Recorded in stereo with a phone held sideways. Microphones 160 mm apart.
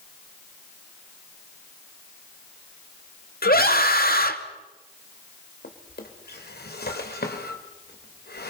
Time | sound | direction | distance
3.4 | a scream | 70° left (ahead or behind) | 2.5 m
5.6 | a drawer | 85° left | 3 m